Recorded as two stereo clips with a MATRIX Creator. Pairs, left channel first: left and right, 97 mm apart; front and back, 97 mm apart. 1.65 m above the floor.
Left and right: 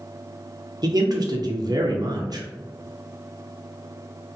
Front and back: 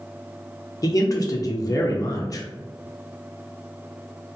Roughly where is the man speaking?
Ahead right.